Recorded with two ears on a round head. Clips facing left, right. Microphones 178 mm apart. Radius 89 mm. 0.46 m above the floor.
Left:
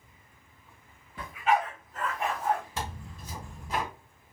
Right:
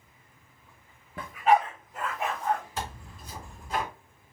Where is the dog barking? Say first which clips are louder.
Right 4 dB; 45° right (ahead or behind), 0.7 m; by 2.6 s 10° left (ahead or behind), 1.0 m.